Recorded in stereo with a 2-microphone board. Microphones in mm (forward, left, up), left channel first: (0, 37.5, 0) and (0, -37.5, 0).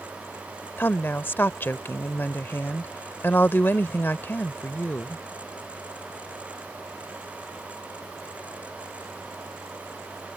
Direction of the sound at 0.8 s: 30° left (ahead or behind).